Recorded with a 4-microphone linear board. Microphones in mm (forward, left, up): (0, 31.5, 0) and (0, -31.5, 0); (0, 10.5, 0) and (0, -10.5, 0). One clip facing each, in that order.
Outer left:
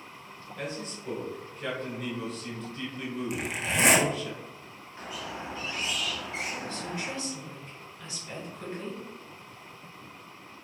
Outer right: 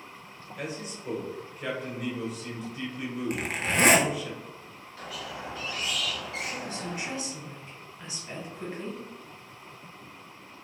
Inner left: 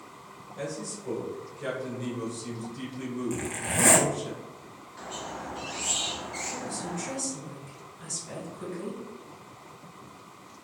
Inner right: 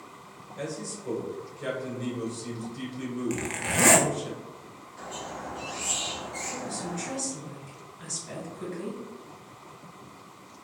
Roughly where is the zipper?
Right.